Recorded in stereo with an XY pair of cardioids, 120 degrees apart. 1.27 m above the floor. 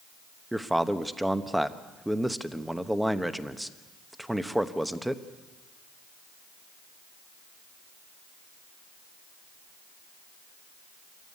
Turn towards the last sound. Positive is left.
turn(degrees=-5)